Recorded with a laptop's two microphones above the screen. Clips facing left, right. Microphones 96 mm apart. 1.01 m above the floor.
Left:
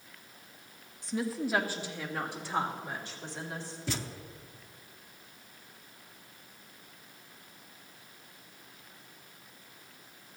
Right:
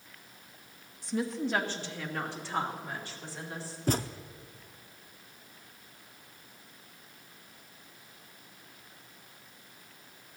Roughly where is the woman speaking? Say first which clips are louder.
Right 1 dB; centre.